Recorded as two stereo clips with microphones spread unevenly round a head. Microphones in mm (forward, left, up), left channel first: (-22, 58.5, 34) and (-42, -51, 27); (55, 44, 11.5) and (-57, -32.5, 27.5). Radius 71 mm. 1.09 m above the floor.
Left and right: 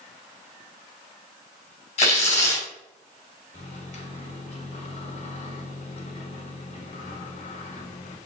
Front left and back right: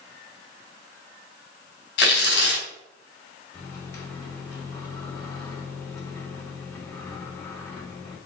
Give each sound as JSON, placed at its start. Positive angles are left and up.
{"t": 2.0, "sound": "tearing paper", "azimuth_deg": 30, "distance_m": 3.5}
{"t": 3.5, "sound": "a microwave", "azimuth_deg": 105, "distance_m": 2.5}